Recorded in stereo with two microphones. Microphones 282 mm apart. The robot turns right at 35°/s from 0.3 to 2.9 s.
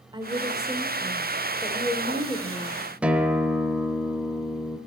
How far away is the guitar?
About 1.1 m.